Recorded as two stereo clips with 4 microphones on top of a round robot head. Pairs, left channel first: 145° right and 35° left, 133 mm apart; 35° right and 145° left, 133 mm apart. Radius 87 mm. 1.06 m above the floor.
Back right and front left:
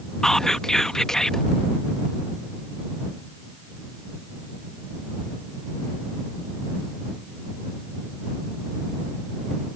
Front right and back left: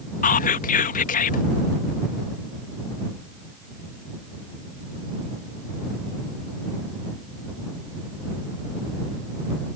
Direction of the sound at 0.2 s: 60° right.